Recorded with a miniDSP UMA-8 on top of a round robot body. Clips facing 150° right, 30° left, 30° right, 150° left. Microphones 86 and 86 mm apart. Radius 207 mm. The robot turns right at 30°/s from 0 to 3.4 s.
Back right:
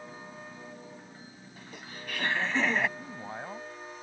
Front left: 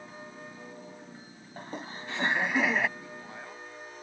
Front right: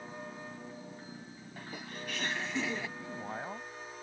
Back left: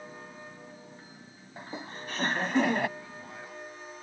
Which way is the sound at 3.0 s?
100° right.